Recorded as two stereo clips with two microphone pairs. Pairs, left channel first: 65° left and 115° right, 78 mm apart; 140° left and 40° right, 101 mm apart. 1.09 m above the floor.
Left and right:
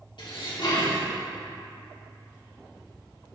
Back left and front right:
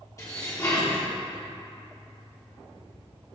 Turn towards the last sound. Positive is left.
turn(degrees=80)